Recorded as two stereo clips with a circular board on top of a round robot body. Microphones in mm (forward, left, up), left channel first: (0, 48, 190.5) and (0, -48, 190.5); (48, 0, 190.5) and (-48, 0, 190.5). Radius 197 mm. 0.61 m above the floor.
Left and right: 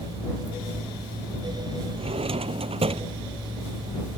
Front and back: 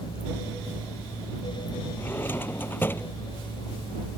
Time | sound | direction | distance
2.0 | a drawer | 70° right | ?